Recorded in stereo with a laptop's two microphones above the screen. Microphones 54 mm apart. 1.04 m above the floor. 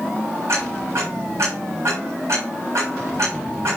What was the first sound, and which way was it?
Ticking, 70° right (ahead or behind).